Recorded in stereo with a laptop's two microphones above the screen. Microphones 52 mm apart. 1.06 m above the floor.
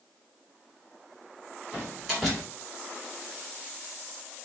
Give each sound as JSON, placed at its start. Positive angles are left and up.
{"t": 1.7, "sound": "a door slam", "side_deg": -5, "distance_m": 2.5}